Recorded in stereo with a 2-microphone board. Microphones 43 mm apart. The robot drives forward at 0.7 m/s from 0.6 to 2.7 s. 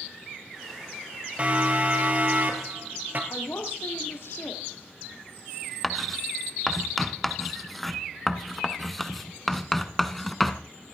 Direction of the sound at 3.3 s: 60° left (ahead or behind).